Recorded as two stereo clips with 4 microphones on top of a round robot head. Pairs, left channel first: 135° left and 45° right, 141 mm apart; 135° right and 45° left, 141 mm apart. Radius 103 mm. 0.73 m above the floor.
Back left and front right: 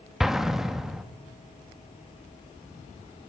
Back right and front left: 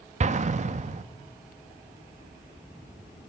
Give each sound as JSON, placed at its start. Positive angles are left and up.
{"t": 0.2, "sound": "an explosion", "azimuth_deg": 45, "distance_m": 0.9}